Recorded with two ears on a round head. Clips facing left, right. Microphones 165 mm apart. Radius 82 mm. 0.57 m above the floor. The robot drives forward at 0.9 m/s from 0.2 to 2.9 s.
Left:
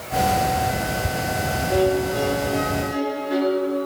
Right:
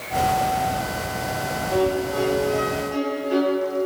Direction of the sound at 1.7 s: 25° left (ahead or behind).